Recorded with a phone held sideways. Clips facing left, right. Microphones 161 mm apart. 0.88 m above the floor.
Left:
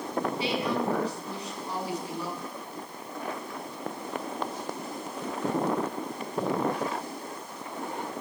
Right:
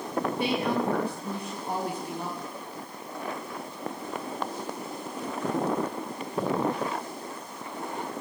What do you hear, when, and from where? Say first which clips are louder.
0.4 s a woman speaking: right 3 dB; 50° right (ahead or behind), 7.5 m